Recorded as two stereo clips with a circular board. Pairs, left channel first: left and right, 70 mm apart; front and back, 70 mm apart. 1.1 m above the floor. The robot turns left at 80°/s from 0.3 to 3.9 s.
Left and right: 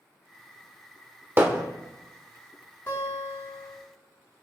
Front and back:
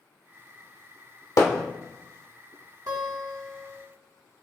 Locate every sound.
1.4 s hammering: 35° right, 1.4 m; by 1.6 s 55° right, 1.4 m
2.9 s a guitar: 145° left, 3.5 m; by 3.8 s 75° left, 3.5 m